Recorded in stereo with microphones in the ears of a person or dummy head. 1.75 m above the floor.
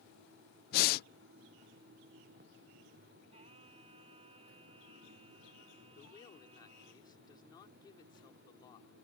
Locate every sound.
0.7 s breathing: 55° left (ahead or behind)
3.3 s singing: 30° right (ahead or behind)
5.9 s a man speaking: 25° left (ahead or behind)